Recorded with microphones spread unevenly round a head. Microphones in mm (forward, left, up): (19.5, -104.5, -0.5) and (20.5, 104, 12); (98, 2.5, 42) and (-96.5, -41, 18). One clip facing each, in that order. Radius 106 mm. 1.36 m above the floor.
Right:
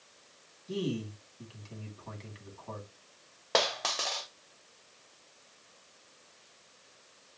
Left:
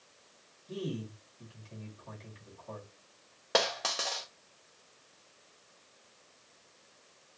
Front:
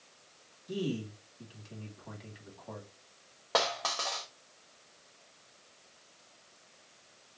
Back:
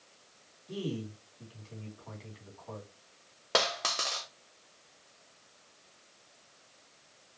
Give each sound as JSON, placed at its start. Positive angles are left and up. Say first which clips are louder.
{"t": 0.7, "sound": "a man speaking", "louder": "right 4 dB, front 2 dB", "azimuth_deg": -55, "distance_m": 3.0}
{"t": 3.5, "sound": "a dropped coin", "louder": "even, even", "azimuth_deg": 155, "distance_m": 1.0}